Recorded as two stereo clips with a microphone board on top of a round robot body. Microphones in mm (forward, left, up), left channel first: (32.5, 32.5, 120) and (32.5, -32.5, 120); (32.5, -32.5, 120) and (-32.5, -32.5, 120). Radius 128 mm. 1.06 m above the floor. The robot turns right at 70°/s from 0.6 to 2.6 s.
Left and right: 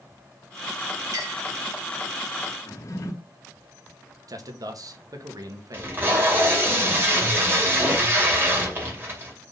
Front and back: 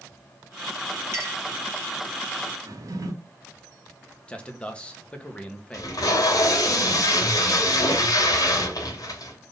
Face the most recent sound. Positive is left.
turn(degrees=-30)